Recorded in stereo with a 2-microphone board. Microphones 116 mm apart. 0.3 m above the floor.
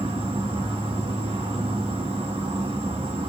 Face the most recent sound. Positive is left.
turn(degrees=-60)  # may be behind; listen again after turning